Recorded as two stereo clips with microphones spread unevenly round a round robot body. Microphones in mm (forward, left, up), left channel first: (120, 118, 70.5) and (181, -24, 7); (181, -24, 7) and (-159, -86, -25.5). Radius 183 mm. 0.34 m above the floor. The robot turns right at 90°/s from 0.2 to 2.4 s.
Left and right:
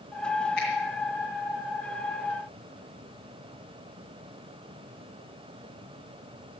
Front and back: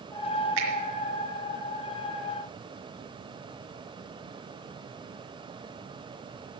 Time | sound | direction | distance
0.6 | a finger snap | 175° left | 3.5 m